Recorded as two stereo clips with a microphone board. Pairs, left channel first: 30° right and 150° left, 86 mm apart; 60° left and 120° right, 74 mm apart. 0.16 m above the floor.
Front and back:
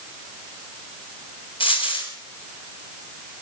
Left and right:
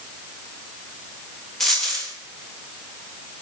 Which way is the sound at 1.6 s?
25° right.